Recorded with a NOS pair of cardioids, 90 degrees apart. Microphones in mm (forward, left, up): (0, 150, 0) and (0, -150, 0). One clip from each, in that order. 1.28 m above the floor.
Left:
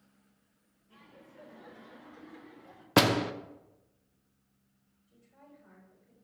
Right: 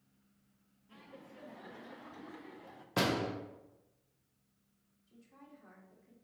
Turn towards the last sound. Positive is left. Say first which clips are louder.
# even
turn(degrees=-65)